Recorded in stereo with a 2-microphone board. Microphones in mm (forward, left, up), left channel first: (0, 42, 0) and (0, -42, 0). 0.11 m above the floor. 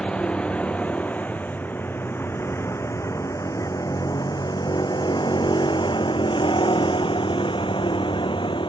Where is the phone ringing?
No phone ringing in this recording.